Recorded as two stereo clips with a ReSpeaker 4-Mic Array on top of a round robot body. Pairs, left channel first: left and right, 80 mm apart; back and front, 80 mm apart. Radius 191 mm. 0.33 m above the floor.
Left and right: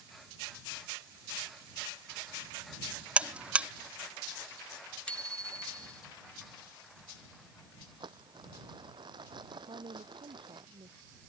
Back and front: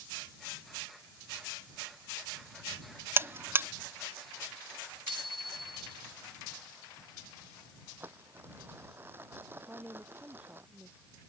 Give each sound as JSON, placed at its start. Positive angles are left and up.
{"t": 3.2, "sound": "a buzzer", "azimuth_deg": -30}
{"t": 5.1, "sound": "a bicycle bell", "azimuth_deg": 10}
{"t": 8.0, "sound": "crumpling", "azimuth_deg": -65}
{"t": 9.7, "sound": "a woman speaking", "azimuth_deg": -75}